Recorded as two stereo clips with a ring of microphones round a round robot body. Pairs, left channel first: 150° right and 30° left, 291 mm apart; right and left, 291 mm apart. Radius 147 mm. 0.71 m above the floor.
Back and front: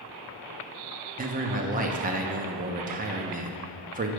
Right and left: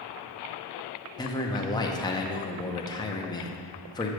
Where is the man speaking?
20° right, 0.7 m.